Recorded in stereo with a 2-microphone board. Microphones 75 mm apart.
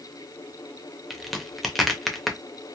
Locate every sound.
1.1 s a crack: centre (ahead or behind), 0.5 m